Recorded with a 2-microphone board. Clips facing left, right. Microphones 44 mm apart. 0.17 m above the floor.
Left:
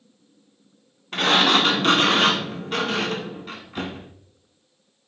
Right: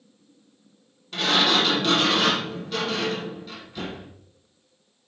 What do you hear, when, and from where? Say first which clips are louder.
1.1 s a sliding door: left 3 dB; 45° left (ahead or behind), 1.1 m